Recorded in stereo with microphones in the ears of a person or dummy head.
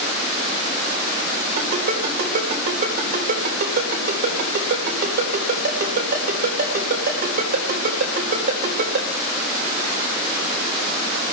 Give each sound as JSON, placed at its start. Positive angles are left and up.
{"t": 1.6, "sound": "a ringtone", "side_deg": -65, "distance_m": 4.5}